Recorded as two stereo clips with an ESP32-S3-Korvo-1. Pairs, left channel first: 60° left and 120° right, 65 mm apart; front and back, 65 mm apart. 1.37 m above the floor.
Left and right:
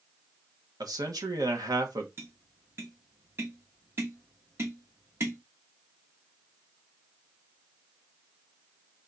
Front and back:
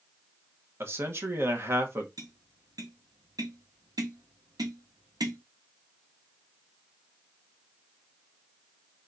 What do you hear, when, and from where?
0.8 s a man speaking: 130° right, 1.0 m
2.2 s tapping: 170° right, 1.1 m